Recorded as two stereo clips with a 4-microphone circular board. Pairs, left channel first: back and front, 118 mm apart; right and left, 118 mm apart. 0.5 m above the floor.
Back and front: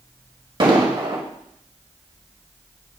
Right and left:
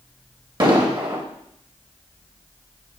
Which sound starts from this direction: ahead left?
An explosion, at 0.6 s.